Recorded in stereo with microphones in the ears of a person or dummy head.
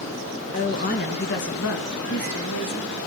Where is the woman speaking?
25° left (ahead or behind), 1.1 m; by 2.9 s 80° left, 2.5 m.